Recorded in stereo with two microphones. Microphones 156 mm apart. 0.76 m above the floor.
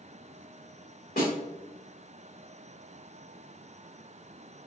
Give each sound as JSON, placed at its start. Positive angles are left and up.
{"t": 1.2, "sound": "a snare drum", "side_deg": 70, "distance_m": 2.5}